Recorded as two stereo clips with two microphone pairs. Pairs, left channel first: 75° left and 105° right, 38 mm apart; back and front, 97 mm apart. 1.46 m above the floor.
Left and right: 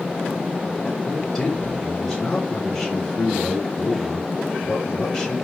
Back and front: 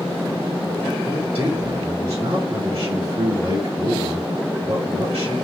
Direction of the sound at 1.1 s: Straight ahead.